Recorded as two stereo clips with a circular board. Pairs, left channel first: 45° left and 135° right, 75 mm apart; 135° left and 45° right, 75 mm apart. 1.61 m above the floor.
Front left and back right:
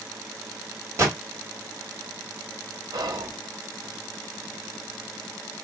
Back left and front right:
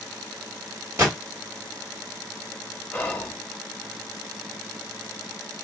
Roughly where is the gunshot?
Right.